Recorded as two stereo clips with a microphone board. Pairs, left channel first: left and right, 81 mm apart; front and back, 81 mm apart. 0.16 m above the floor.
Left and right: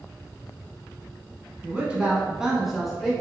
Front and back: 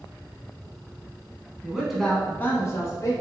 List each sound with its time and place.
1.6 s a man speaking: 130° right, 1.0 m; by 3.1 s 5° left, 1.4 m